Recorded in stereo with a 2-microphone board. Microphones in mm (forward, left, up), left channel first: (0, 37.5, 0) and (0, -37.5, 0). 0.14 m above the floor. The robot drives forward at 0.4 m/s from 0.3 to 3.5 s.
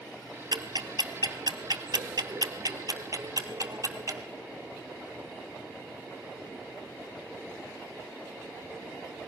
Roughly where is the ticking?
Right.